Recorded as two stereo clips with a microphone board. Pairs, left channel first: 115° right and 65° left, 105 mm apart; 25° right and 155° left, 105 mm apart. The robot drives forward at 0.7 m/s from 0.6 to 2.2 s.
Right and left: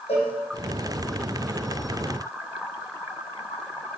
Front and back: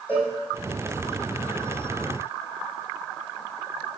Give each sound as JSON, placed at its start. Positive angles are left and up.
{"t": 0.1, "sound": "a cowbell", "azimuth_deg": -100, "distance_m": 3.0}